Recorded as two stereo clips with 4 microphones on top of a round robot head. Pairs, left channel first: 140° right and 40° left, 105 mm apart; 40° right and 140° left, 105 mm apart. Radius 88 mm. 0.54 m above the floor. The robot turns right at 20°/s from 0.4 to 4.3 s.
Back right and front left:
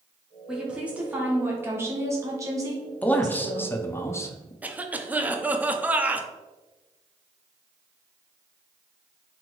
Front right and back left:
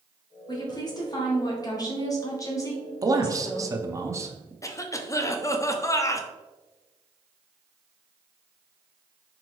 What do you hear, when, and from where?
0.5 s a woman speaking: 40° right, 1.5 m; by 3.7 s 20° left, 1.5 m
3.0 s a man speaking: 155° left, 0.7 m; by 4.5 s straight behind, 0.7 m
4.6 s a cough: 25° right, 0.6 m